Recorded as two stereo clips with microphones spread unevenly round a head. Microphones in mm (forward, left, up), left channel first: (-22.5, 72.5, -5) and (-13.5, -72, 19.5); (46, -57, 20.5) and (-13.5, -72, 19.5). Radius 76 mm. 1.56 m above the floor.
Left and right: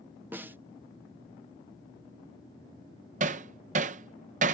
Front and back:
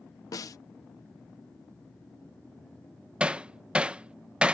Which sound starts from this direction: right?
Hammering, at 3.2 s.